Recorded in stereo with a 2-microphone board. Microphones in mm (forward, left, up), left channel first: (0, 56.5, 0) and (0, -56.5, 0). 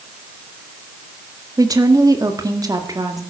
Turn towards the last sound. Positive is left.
turn(degrees=-35)  # may be behind; listen again after turning